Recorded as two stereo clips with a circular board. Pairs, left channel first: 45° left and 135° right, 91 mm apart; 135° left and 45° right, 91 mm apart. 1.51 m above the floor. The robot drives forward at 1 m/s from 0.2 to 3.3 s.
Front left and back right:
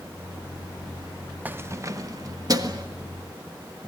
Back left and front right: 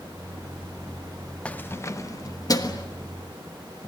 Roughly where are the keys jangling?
Behind.